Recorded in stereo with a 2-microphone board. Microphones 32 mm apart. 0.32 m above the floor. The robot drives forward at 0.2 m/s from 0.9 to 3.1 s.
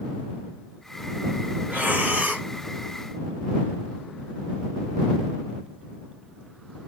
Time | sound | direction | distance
1.7 | breathing | 65° right (ahead or behind) | 1.8 m